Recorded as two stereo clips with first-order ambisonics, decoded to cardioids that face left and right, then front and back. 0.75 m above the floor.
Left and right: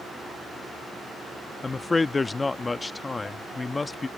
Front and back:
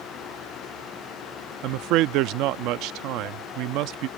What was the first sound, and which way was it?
A man speaking, 170° left.